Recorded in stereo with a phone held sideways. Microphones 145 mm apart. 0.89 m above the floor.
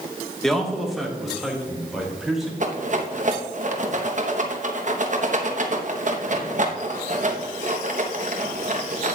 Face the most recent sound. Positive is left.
turn(degrees=-55)  # may be behind; listen again after turning